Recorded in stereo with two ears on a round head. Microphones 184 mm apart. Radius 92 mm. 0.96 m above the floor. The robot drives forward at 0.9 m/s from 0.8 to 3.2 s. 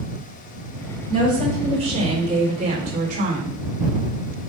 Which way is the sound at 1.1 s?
25° right (ahead or behind).